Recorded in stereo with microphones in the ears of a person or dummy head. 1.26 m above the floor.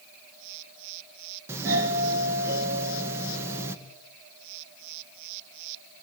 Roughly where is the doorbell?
Centre.